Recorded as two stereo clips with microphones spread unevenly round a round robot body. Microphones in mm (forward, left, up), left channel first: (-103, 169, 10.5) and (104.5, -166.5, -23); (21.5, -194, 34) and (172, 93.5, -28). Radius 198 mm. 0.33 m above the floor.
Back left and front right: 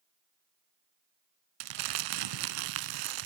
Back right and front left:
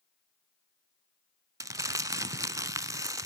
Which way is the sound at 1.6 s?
20° right.